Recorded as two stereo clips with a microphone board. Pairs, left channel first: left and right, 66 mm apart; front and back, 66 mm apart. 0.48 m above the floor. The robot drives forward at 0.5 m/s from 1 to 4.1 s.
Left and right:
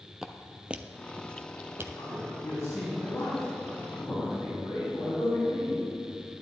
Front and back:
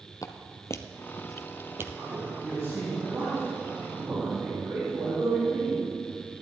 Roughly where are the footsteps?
Ahead.